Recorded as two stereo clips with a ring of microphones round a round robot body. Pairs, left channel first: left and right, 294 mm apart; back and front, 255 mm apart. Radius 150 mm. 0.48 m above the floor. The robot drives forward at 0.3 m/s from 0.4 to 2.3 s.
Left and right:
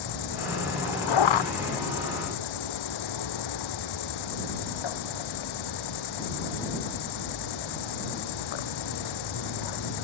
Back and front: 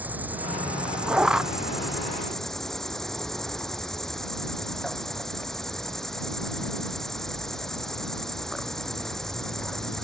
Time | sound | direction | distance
0.0 | an insect | 85° left | ?